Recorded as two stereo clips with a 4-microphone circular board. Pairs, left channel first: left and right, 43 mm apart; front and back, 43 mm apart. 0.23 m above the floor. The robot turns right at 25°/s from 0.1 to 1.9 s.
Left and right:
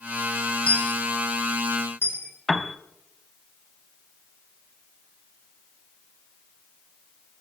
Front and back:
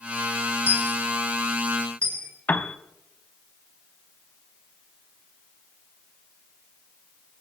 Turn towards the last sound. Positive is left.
turn(degrees=0)